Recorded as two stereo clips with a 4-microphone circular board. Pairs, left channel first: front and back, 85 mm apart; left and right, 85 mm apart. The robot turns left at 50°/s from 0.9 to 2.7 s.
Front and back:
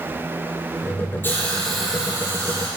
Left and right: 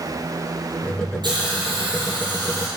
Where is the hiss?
65° right, 3 m; by 2.7 s 135° right, 3 m.